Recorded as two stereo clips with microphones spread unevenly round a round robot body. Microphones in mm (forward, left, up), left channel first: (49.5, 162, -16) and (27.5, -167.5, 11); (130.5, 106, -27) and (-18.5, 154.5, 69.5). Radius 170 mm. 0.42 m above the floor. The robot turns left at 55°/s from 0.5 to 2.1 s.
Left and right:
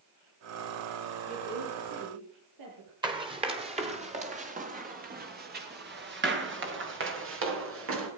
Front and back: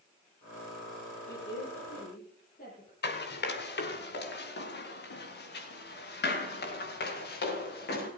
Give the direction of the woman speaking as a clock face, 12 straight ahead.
1 o'clock.